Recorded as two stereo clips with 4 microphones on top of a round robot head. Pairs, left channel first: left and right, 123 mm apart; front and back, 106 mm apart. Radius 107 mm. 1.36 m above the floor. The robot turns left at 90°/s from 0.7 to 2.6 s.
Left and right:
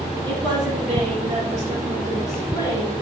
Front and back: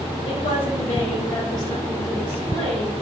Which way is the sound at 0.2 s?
35° right.